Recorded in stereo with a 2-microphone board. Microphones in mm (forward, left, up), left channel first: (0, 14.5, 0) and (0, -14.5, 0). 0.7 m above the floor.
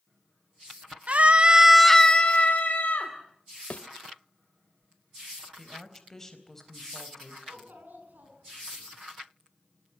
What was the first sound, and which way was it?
A scream, 50° right (ahead or behind).